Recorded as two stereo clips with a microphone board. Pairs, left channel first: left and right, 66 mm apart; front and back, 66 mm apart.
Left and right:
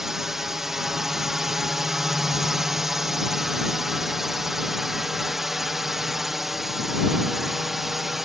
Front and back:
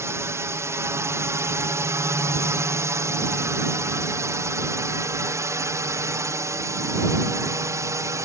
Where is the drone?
175° right.